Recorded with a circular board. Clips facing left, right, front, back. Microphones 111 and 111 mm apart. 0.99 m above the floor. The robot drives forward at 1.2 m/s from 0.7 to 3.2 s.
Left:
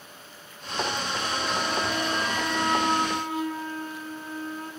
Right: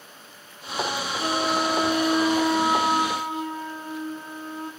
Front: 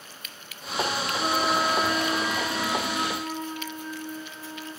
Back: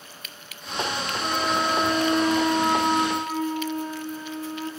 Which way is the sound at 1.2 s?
60° right.